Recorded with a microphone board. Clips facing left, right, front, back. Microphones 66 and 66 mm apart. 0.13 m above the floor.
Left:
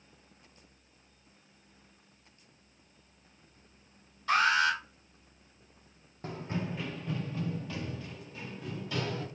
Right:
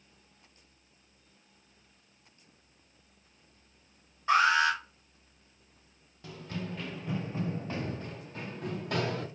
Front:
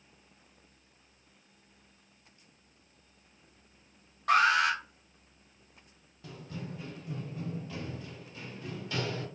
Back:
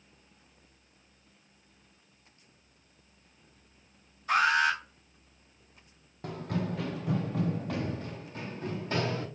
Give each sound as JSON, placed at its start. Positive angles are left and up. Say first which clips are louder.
{"t": 4.3, "sound": "an alarm", "louder": "right 2 dB, front 1 dB", "azimuth_deg": -25, "distance_m": 3.0}
{"t": 6.2, "sound": "running footsteps", "louder": "left 3 dB, back 9 dB", "azimuth_deg": 140, "distance_m": 0.6}